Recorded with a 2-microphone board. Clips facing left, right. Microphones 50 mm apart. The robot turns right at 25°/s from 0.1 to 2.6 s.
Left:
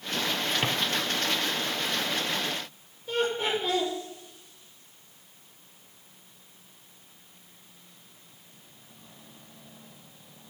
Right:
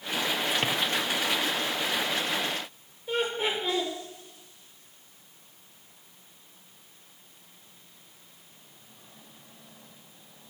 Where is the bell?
I don't hear a bell.